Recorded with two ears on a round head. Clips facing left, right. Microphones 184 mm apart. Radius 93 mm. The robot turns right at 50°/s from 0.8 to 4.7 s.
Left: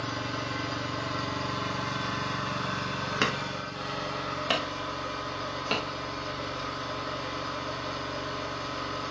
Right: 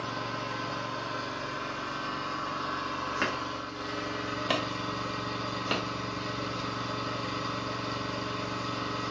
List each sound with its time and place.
0.0 s an engine running: 25° left, 2.0 m; by 9.1 s 140° right, 2.0 m
3.2 s hammering: 50° left (ahead or behind), 1.3 m; by 5.9 s 5° right (ahead or behind), 1.3 m